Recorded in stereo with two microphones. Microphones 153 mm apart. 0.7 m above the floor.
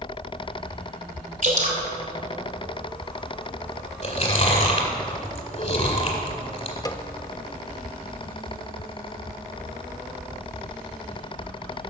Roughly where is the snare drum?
Left.